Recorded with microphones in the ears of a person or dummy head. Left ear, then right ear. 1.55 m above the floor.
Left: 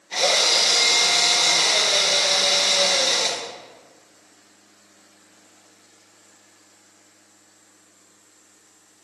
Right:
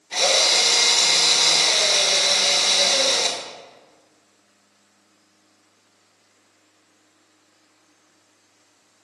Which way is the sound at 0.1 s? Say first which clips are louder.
Right 1 dB; 5° right (ahead or behind).